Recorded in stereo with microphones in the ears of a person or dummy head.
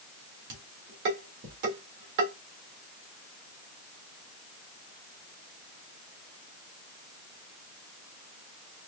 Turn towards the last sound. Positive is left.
turn(degrees=-60)  # may be behind; listen again after turning